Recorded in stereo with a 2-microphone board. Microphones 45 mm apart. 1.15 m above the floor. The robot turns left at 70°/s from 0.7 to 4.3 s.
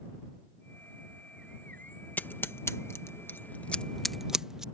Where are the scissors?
40° left (ahead or behind); by 4.6 s 10° right (ahead or behind).